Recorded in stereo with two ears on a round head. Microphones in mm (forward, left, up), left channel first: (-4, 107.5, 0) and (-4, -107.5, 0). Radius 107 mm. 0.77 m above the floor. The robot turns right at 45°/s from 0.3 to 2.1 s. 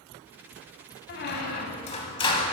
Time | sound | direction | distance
1.1 | a squeak | 105° left | 0.8 m